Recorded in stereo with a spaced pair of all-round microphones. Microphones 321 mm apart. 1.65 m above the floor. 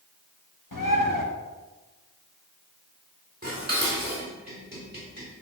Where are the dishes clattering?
30° right (ahead or behind), 4 m.